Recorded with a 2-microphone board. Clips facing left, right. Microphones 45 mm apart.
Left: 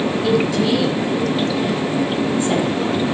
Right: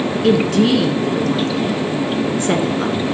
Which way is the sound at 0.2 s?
60° right (ahead or behind).